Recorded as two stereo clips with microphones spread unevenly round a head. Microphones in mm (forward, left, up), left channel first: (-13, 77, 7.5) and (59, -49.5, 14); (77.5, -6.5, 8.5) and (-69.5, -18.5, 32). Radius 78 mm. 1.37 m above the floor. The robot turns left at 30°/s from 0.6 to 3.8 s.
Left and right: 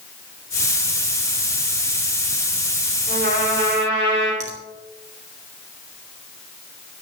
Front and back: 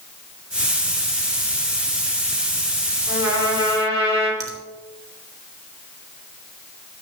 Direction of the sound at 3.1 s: 100° right.